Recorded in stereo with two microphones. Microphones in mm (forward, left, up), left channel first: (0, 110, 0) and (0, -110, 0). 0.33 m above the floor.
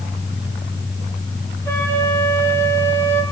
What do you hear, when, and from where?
1.6 s a flute: 15° left (ahead or behind), 8 m